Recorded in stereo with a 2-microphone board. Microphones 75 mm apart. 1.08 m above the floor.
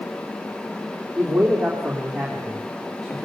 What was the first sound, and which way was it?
A man speaking, 5° right (ahead or behind).